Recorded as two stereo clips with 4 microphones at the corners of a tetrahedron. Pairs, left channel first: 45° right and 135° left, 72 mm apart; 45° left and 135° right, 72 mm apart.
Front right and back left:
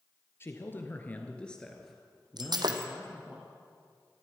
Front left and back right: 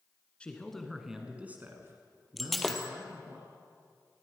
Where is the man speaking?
20° right, 1.8 m; by 3.4 s 155° right, 3 m.